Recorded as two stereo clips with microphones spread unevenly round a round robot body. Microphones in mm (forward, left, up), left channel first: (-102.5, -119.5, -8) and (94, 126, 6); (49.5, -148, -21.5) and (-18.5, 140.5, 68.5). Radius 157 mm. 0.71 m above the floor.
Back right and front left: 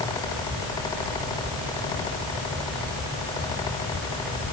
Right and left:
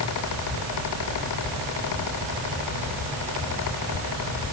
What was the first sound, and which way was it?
Only background noise.